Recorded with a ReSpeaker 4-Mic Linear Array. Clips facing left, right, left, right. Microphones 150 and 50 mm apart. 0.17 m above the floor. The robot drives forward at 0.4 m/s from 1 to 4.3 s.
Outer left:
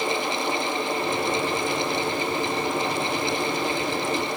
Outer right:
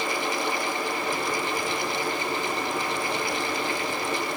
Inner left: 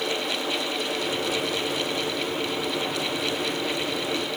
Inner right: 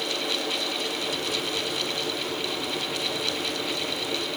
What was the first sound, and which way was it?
Only background noise.